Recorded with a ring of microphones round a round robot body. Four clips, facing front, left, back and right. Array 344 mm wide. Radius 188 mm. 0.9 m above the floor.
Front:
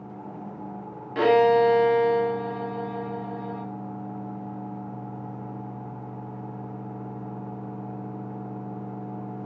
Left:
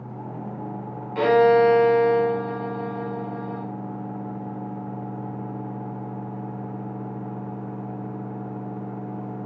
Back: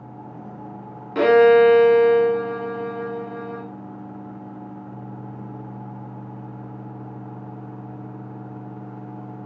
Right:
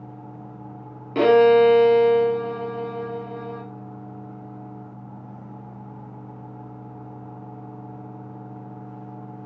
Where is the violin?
120° right, 2.5 m.